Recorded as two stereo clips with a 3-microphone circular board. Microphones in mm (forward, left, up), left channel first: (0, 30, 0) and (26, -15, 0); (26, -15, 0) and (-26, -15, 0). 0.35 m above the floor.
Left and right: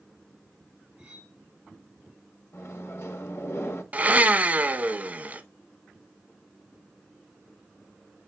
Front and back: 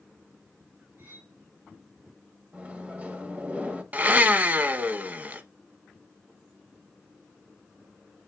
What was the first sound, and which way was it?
Cutlery clinking, 135° right.